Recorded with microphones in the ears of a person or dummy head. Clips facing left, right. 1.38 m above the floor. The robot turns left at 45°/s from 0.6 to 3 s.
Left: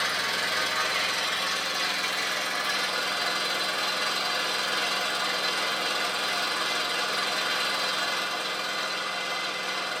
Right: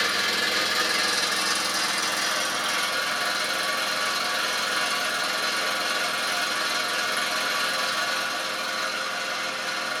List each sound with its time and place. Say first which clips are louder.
0.0 s an engine running: right 3 dB; 45° right, 1.6 m; by 10.0 s 155° right, 1.6 m